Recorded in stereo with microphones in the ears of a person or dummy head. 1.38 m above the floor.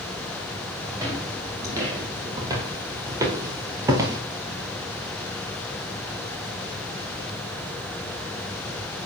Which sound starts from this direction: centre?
Footsteps, at 0.9 s.